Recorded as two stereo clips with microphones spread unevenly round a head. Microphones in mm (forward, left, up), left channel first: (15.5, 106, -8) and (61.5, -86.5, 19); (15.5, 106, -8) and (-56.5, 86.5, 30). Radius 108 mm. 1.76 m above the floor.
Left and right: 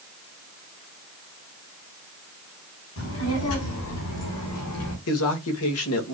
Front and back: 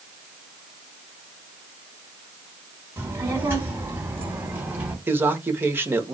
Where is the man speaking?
140° left, 2.5 m.